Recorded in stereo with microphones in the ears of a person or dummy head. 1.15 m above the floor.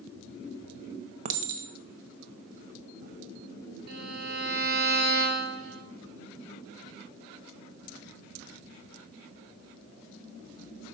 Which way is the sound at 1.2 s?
45° right (ahead or behind).